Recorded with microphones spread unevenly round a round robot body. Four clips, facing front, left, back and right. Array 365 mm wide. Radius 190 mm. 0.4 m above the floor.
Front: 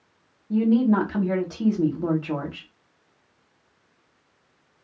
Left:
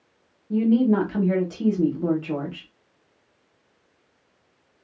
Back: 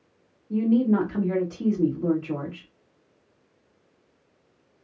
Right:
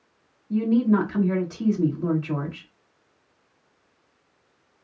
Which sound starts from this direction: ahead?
A woman speaking, at 0.5 s.